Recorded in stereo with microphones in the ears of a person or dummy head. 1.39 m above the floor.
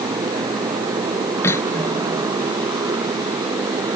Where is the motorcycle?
20° right (ahead or behind).